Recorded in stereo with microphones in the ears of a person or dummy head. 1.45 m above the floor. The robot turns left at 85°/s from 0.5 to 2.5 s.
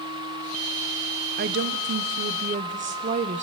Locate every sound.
1.4 s a woman speaking: 50° right, 1.1 m; by 3.4 s 145° right, 1.1 m